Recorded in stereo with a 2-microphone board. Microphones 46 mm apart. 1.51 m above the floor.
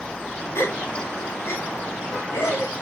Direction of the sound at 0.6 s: 80° left.